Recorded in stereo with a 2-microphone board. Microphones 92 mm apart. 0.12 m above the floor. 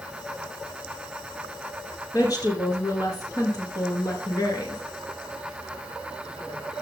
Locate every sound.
2.1 s a woman speaking: 40° left (ahead or behind), 2 m